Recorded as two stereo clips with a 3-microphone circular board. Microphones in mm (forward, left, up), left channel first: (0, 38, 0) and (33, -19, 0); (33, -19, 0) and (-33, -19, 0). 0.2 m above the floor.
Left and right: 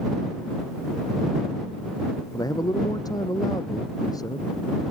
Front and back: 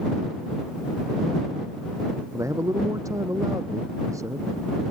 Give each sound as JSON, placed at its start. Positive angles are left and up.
{"t": 2.3, "sound": "a man speaking", "azimuth_deg": 145}